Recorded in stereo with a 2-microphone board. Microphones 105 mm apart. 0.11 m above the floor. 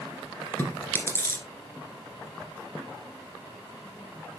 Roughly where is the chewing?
Left.